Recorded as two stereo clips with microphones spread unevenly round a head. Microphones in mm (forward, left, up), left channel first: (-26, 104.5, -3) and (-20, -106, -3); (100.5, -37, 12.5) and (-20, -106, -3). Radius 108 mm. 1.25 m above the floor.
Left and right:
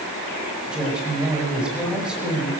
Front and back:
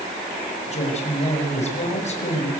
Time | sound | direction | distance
0.7 | a woman speaking | straight ahead | 6.5 m